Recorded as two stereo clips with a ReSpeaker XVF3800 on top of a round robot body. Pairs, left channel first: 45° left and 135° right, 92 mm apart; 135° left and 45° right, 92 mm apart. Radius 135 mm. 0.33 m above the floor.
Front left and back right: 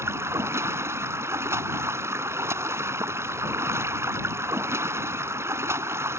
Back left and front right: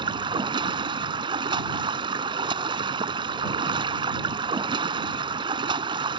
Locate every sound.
0.0 s running water: 75° right